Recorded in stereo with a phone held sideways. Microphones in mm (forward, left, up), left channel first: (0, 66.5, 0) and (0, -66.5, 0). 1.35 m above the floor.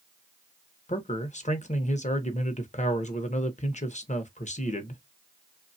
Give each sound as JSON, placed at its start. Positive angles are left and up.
{"t": 0.9, "sound": "a man speaking", "side_deg": 60, "distance_m": 0.7}